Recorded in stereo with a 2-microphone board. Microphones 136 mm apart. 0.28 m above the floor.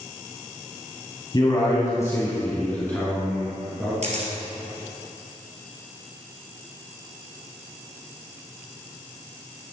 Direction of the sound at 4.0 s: 55° right (ahead or behind).